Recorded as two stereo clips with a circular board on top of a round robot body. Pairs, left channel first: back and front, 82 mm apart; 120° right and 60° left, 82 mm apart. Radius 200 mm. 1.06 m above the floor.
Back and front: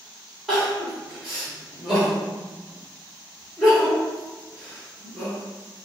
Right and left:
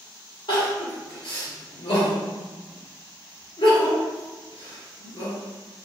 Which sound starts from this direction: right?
Crying, at 0.5 s.